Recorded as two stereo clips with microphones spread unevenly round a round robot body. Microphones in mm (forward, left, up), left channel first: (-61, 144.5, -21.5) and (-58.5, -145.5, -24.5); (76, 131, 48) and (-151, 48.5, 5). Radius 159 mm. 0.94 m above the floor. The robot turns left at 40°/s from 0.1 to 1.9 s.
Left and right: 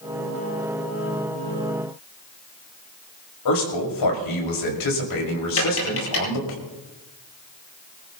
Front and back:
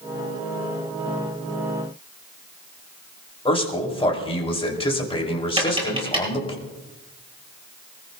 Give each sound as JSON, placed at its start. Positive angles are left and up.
{"t": 3.5, "sound": "a man speaking", "azimuth_deg": 90, "distance_m": 5.5}
{"t": 5.6, "sound": "tapping", "azimuth_deg": 130, "distance_m": 8.0}